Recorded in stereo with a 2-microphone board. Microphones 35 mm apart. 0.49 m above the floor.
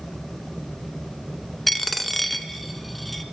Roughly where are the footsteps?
No footsteps in this recording.